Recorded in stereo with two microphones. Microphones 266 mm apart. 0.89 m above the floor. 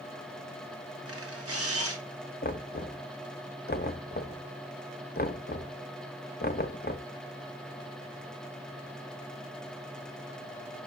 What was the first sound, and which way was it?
A camera shutter, 60° right (ahead or behind).